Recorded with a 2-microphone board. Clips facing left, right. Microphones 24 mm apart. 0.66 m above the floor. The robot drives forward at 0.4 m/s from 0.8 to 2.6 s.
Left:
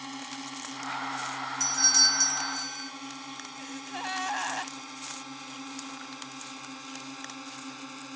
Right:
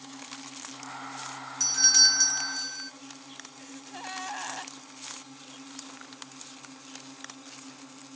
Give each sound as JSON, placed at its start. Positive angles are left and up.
{"t": 0.0, "sound": "a drone", "side_deg": 35}
{"t": 1.6, "sound": "a doorbell", "side_deg": -15}
{"t": 3.6, "sound": "a gasp", "side_deg": 25}